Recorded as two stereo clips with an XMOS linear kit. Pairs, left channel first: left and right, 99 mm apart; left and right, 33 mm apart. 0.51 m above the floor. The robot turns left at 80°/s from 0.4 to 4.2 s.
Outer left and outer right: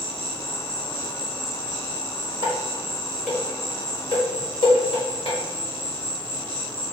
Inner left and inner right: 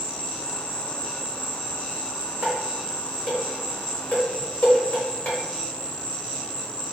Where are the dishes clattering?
60° right (ahead or behind), 1.5 m; by 5.4 s 65° left (ahead or behind), 1.5 m.